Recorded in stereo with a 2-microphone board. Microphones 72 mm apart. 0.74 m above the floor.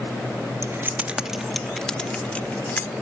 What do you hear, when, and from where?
0.6 s keys jangling: 40° right (ahead or behind); by 2.9 s 25° left (ahead or behind)